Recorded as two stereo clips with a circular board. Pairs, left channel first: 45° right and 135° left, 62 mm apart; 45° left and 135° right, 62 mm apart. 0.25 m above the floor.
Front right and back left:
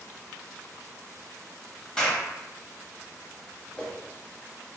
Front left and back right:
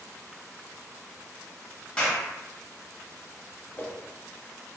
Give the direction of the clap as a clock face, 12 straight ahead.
11 o'clock.